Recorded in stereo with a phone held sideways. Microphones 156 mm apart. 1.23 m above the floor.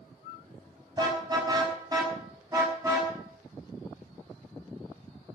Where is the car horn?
25° right (ahead or behind), 5 m; by 3.1 s 20° right (ahead or behind), 6.5 m.